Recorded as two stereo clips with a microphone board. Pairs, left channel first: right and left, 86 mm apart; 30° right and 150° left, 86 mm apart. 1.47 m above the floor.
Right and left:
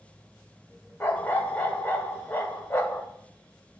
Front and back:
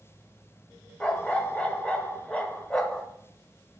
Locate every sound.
1.0 s a dog barking: 90° right, 0.9 m